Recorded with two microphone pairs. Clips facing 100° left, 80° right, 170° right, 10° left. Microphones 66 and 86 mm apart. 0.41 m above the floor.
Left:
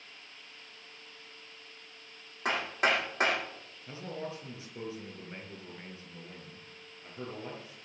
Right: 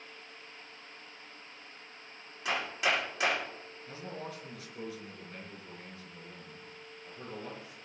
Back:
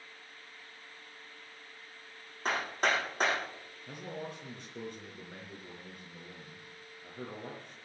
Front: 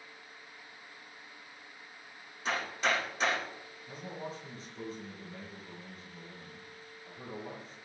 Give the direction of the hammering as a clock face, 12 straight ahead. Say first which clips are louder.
Left 2 dB, back 1 dB; 7 o'clock.